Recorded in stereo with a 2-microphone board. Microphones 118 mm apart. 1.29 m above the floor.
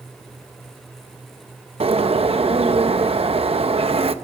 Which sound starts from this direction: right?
A bird, at 1.8 s.